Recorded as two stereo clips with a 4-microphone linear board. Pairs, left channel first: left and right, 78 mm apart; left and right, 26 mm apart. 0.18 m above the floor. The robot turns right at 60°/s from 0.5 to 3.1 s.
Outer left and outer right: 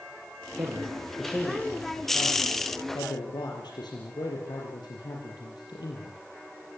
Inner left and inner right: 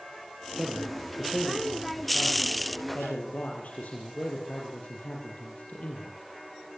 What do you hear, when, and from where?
0.6 s a man speaking: 45° right, 5.5 m; by 6.2 s 110° left, 5.5 m